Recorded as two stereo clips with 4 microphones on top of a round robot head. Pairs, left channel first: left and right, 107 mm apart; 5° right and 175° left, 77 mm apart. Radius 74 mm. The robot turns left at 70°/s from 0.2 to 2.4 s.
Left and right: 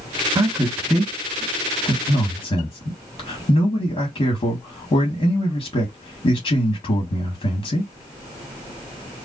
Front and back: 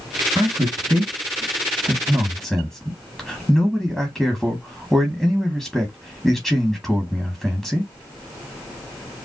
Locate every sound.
0.3 s a man speaking: 125° right, 1.7 m; by 7.9 s 90° left, 1.7 m